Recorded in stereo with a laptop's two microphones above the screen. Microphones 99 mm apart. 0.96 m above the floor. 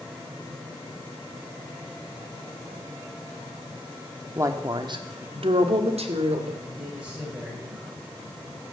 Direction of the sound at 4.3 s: 30° right (ahead or behind).